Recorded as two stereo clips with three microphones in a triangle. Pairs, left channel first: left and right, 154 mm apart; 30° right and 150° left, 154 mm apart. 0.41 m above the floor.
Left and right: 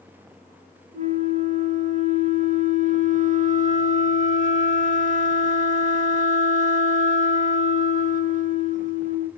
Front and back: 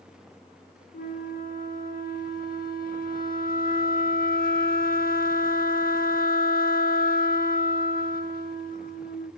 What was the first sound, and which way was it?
A flute, 50° right.